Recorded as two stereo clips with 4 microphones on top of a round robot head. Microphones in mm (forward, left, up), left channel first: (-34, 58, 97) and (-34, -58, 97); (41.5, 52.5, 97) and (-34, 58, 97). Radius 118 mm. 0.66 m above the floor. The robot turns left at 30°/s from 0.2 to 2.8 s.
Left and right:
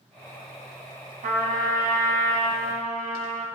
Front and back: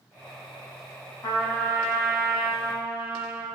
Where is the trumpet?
60° right, 5 m; by 3.5 s 105° right, 5 m.